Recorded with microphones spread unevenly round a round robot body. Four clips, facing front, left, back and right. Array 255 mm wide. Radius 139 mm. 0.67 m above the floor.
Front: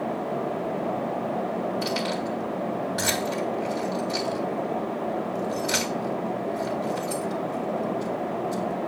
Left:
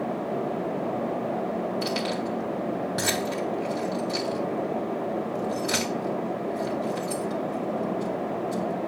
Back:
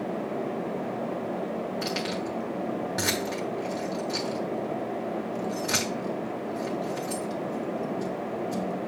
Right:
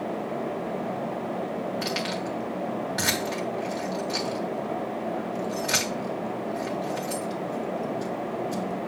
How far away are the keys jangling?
About 1.3 m.